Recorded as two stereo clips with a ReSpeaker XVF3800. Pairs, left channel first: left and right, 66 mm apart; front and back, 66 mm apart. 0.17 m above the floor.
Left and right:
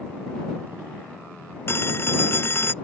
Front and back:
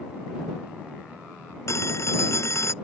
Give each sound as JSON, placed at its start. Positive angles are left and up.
{"t": 1.7, "sound": "a phone ringing", "azimuth_deg": 35}